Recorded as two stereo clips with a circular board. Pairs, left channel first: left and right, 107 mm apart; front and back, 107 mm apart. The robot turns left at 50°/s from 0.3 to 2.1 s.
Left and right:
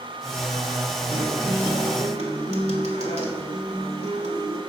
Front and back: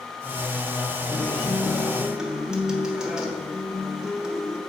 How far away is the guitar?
About 1.9 m.